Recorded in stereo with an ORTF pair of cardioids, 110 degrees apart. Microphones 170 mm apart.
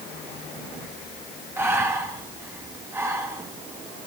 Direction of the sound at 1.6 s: 15° right.